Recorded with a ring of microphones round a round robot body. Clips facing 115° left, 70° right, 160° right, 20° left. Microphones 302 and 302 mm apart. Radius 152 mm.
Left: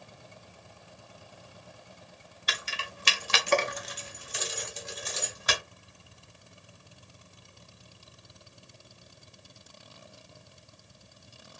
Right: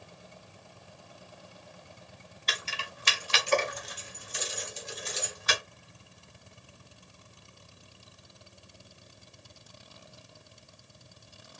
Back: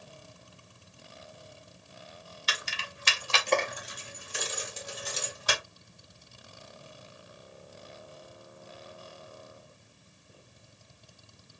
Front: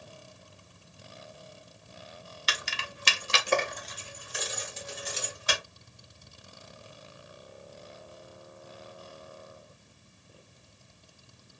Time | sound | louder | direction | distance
2.5 | keys jangling | even, front 1 dB | 30° left | 0.8 m